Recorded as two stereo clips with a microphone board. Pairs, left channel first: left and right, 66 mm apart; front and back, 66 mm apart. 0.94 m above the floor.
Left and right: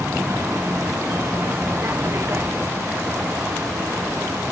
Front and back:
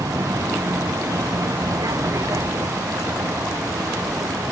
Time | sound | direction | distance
0.0 | a vehicle | 140° right | ?